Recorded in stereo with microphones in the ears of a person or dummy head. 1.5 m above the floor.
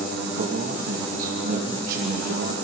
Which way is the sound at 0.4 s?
55° right (ahead or behind).